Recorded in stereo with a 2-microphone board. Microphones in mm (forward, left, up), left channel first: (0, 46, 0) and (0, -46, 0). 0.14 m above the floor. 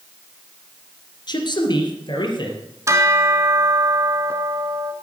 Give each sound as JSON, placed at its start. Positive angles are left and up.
{"t": 1.3, "sound": "a man speaking", "side_deg": 50, "distance_m": 2.0}
{"t": 2.9, "sound": "a bell", "side_deg": -30, "distance_m": 1.2}